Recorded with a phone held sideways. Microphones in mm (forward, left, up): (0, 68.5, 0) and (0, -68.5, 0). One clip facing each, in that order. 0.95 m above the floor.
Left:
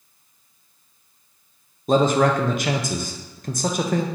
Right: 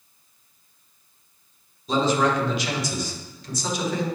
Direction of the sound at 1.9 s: 50° left (ahead or behind).